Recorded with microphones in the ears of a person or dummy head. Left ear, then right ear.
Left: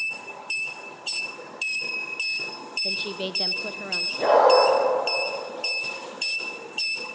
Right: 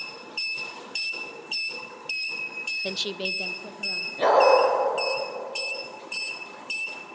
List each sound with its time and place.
2.8 s a woman speaking: 55° right (ahead or behind), 0.6 m; by 4.1 s 50° left (ahead or behind), 1.4 m
4.2 s a dog barking: 35° right (ahead or behind), 7.5 m